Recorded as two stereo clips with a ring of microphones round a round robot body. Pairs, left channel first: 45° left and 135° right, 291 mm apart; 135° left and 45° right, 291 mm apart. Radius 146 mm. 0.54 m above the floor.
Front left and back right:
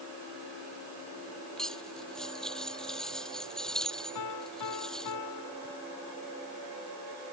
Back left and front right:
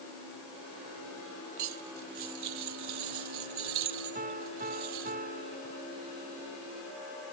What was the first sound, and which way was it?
Cutlery clinking, 45° right.